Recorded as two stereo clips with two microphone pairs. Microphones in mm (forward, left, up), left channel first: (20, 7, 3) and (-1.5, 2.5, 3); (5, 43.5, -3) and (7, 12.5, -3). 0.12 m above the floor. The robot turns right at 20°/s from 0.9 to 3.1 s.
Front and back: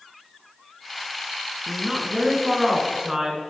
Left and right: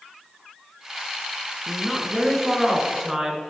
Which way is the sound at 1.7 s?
175° left.